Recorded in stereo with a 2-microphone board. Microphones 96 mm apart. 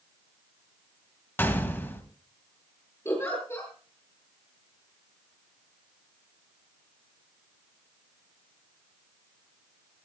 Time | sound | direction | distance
1.4 | a gunshot | 20° left (ahead or behind) | 2.5 m
3.0 | a giggle | 25° left (ahead or behind) | 8 m